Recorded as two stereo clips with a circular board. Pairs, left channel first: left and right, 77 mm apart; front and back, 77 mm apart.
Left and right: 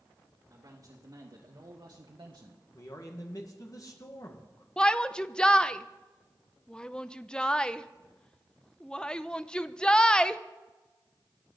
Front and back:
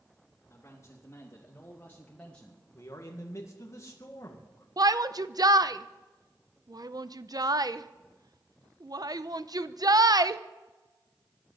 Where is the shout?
165° left, 0.7 m.